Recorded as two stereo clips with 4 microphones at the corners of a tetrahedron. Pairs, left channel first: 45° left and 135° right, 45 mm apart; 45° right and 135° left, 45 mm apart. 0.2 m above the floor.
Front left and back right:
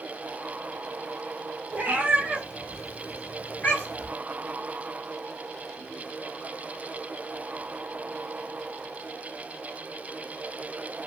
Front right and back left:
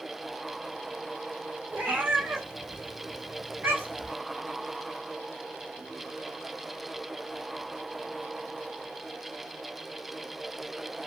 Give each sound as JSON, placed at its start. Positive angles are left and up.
{"t": 1.7, "sound": "a cat meowing", "azimuth_deg": 175, "distance_m": 1.0}